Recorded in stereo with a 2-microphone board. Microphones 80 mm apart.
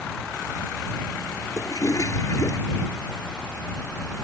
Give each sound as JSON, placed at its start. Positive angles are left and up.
{"t": 1.6, "sound": "a toilet flushing", "side_deg": 45}